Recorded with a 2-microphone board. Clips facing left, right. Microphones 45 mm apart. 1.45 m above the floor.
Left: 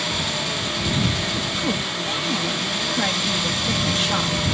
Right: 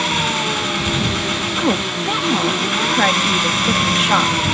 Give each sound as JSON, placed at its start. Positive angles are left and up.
{"t": 0.0, "sound": "an engine running", "side_deg": -50}
{"t": 1.6, "sound": "a woman speaking", "side_deg": -45}